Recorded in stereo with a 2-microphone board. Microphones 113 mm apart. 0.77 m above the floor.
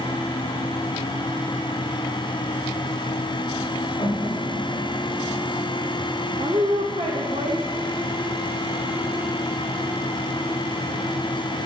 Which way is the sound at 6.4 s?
75° right (ahead or behind).